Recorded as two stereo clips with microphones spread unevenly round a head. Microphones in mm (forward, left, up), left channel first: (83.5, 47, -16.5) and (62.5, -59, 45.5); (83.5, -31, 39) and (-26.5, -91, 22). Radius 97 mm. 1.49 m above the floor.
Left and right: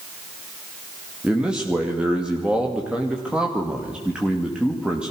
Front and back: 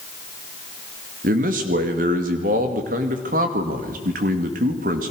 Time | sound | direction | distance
1.2 | a man speaking | 175° left | 2.5 m